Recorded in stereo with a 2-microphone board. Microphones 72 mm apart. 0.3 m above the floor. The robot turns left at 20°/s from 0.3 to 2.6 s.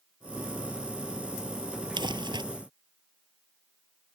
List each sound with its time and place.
2.0 s crumpling: 85° right; by 2.4 s 80° right